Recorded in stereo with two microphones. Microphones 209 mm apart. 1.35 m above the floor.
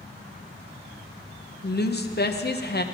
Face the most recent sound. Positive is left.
turn(degrees=50)  # may be behind; listen again after turning